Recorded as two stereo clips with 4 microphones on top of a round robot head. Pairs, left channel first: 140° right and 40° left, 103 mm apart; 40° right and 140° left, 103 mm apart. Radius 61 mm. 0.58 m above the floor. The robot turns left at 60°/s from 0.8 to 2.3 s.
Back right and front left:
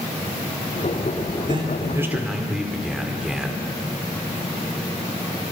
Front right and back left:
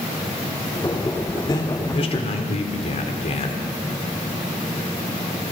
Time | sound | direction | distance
1.5 | a man speaking | 10° left | 1.5 m